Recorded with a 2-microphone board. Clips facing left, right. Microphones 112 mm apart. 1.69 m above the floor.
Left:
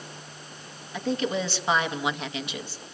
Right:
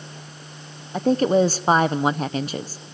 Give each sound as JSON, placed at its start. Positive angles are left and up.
{"t": 0.9, "sound": "a woman speaking", "side_deg": -40, "distance_m": 0.6}